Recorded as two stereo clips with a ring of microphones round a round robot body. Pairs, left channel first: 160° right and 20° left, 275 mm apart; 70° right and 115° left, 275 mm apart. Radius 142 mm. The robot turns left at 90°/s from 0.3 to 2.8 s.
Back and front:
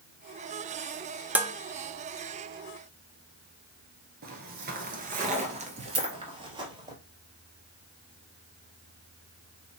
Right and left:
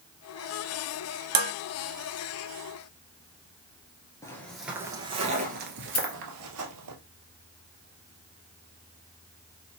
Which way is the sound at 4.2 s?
Straight ahead.